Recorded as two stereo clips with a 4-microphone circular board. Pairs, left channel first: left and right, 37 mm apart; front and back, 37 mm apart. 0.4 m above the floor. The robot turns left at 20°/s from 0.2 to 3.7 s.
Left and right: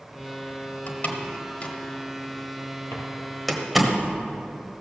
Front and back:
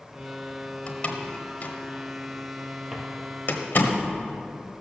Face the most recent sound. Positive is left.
turn(degrees=75)